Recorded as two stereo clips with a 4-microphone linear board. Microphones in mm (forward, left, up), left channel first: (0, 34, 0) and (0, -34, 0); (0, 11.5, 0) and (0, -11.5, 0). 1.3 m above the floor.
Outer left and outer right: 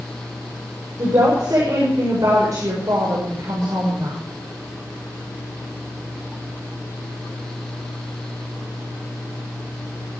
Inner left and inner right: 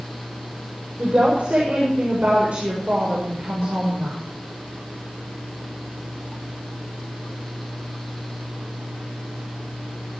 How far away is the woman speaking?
About 6 m.